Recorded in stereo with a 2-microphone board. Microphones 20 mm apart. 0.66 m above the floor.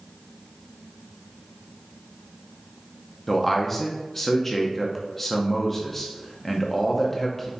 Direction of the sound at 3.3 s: 10° left (ahead or behind).